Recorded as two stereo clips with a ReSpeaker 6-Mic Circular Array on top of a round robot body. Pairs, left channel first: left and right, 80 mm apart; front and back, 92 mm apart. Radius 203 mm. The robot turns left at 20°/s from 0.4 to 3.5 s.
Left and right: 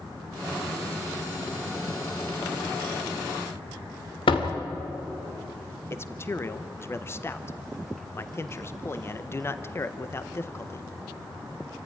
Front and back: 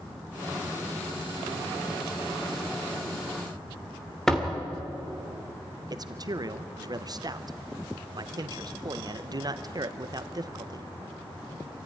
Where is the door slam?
85° left, 2.5 m.